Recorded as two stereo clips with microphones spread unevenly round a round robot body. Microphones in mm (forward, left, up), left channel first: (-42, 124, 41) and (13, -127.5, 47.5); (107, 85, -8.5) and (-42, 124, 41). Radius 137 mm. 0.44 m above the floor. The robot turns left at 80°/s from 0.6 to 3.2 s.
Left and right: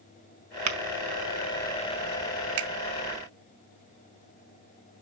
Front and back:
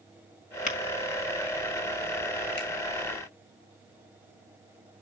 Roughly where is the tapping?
Ahead right.